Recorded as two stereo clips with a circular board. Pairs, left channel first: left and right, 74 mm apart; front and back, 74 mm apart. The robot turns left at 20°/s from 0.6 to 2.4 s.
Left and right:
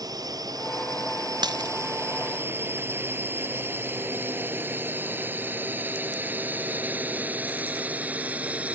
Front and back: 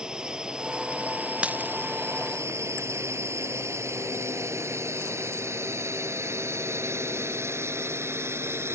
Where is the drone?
105° right; by 8.8 s 150° right.